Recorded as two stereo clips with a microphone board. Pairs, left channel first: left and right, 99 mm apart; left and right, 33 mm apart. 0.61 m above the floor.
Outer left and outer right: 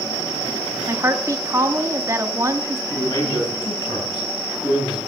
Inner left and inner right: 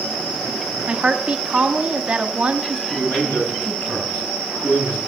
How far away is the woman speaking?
About 0.9 m.